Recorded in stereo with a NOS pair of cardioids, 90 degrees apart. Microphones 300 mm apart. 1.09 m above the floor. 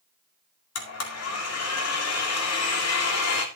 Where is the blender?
55° left, 2 m.